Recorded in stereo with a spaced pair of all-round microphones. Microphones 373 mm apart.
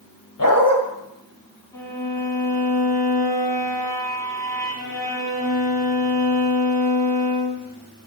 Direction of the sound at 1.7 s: 10° left (ahead or behind).